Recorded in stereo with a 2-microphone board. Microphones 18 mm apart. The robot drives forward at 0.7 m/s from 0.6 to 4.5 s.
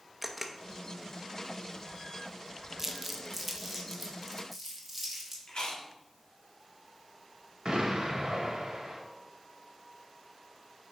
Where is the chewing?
75° left (ahead or behind), 1.3 m.